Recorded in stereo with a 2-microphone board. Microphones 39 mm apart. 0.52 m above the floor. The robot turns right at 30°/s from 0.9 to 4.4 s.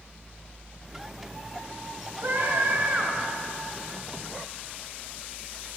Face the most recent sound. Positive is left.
turn(degrees=-5)